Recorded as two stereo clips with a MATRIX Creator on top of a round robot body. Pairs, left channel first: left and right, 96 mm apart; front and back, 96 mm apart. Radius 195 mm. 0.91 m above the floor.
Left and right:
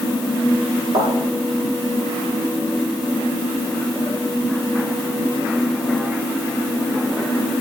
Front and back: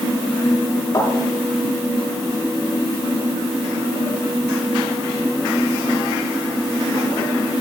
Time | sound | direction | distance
0.9 | a thud | 50° right | 8 m